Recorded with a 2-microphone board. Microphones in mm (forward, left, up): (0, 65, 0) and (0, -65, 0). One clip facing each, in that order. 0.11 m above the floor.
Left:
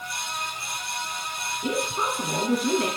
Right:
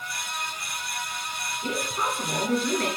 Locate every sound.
1.6 s a woman speaking: 15° left (ahead or behind), 1.5 m